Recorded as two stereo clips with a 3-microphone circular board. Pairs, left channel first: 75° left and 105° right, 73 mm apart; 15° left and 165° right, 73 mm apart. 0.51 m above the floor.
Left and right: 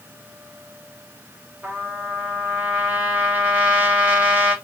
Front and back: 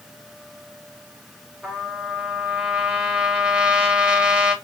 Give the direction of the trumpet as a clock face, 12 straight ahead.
4 o'clock.